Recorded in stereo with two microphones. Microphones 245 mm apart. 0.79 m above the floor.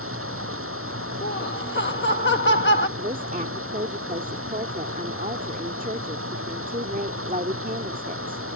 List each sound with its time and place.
0.0 s running water: 60° right (ahead or behind)
1.2 s laughter: 50° left (ahead or behind)
3.0 s a woman speaking: 35° right (ahead or behind)